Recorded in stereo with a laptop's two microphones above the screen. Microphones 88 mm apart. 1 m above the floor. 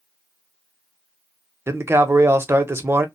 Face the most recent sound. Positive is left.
turn(degrees=-30)  # may be behind; listen again after turning